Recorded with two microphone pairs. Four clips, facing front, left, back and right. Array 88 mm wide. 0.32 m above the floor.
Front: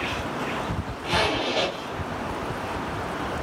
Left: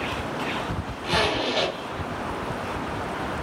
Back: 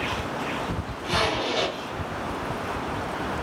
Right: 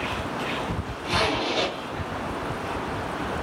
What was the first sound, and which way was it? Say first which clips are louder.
A zipper: left 1 dB, front 1 dB; 75° left.